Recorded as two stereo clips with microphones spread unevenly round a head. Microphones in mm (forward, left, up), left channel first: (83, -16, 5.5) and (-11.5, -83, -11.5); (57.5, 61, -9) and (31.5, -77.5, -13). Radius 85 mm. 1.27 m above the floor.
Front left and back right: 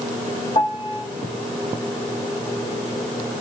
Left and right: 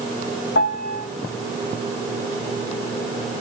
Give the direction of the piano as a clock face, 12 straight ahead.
9 o'clock.